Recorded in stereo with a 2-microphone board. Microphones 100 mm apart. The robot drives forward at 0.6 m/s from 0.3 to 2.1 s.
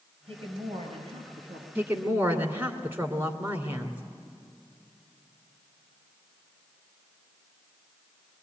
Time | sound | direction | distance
0.3 | a woman speaking | 70° right (ahead or behind) | 5 m
1.8 | a woman speaking | 20° right (ahead or behind) | 2.0 m